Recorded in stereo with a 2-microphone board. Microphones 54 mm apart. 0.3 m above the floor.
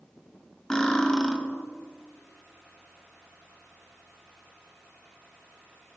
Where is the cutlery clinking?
15° left (ahead or behind), 0.8 m.